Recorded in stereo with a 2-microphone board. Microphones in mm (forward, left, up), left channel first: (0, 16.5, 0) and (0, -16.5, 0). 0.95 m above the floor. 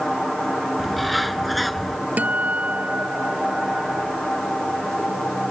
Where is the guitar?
55° right (ahead or behind).